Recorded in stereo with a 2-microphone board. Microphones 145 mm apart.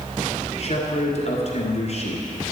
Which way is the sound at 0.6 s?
50° left (ahead or behind).